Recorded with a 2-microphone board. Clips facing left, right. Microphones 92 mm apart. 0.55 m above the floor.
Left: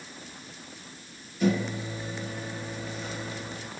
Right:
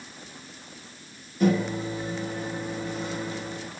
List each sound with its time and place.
1.4 s a microwave: 45° right (ahead or behind), 1.6 m